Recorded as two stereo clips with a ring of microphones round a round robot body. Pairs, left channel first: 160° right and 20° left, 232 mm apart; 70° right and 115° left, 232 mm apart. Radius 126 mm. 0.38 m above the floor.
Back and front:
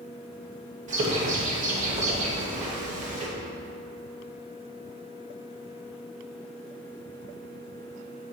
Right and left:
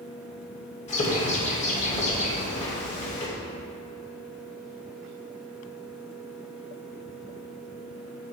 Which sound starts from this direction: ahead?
A bird, at 0.9 s.